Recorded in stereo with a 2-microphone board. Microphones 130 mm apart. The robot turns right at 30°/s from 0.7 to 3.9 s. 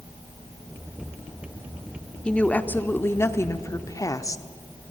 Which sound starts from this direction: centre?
A woman speaking, at 2.2 s.